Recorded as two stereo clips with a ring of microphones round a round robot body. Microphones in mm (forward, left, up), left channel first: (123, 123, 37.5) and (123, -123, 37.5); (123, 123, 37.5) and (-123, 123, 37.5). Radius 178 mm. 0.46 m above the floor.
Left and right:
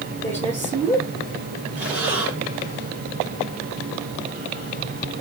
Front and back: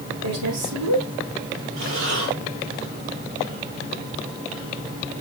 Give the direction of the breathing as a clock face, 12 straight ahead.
5 o'clock.